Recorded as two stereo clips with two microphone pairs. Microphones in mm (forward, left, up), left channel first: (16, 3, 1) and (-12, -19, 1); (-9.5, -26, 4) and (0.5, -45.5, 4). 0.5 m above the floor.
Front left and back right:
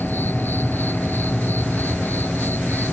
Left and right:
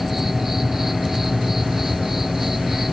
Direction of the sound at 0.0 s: 15° left.